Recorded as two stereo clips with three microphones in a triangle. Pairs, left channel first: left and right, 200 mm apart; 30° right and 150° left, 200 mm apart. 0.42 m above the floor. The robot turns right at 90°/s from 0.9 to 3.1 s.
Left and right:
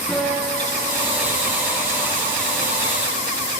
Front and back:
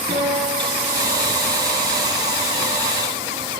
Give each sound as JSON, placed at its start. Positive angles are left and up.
{"t": 0.1, "sound": "a guitar", "azimuth_deg": 175, "distance_m": 5.5}